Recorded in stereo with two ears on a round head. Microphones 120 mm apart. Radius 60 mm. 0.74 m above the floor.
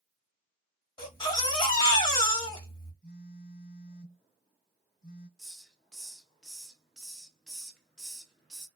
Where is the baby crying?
30° left (ahead or behind), 1.3 m.